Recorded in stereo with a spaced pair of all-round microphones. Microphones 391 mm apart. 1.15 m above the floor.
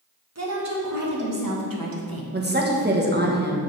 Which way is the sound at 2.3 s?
25° right (ahead or behind).